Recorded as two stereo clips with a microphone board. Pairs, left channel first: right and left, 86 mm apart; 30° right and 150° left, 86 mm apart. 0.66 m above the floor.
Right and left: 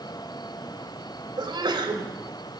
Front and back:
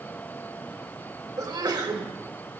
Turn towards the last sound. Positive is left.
turn(degrees=115)